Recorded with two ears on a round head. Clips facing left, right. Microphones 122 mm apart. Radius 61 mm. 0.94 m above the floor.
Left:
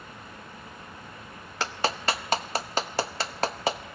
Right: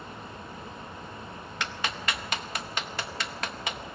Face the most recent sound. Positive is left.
turn(degrees=30)  # may be behind; listen again after turning